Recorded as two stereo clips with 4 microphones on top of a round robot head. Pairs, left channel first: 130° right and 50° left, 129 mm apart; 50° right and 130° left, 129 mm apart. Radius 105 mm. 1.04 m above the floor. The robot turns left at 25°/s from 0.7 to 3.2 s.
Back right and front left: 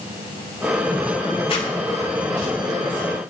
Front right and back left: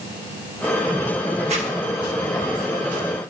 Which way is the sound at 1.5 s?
175° left.